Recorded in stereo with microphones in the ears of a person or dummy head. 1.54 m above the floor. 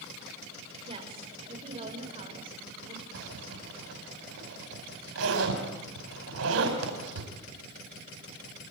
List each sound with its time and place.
0.8 s a woman speaking: 30° right (ahead or behind), 6 m
3.1 s a zipper: 85° right, 5 m